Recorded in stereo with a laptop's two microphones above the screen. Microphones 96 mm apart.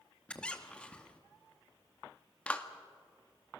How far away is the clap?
About 1.7 m.